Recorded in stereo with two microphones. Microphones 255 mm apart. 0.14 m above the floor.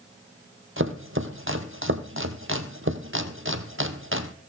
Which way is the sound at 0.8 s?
50° right (ahead or behind).